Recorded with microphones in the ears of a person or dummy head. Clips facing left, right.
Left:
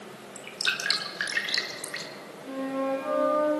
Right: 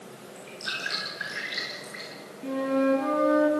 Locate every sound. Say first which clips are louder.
0.3 s dripping: left 1 dB; 90° left, 2.5 m
2.4 s a flute: right 6 dB; 80° right, 7 m